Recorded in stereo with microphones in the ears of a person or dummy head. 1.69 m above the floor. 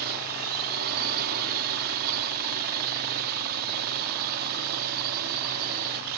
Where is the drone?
55° right (ahead or behind).